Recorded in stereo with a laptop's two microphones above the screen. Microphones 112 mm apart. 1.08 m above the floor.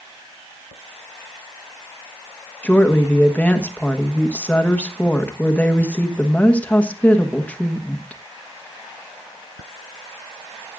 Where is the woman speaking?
15° left (ahead or behind), 1.1 m.